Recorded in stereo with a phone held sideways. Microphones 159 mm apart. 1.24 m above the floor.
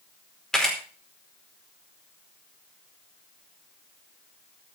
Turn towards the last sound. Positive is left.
turn(degrees=5)  # may be behind; listen again after turning